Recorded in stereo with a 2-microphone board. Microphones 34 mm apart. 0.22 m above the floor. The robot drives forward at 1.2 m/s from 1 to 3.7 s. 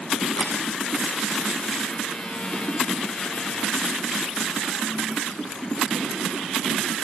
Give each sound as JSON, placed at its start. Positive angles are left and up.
{"t": 0.4, "sound": "a camera shutter", "side_deg": 45, "distance_m": 5.5}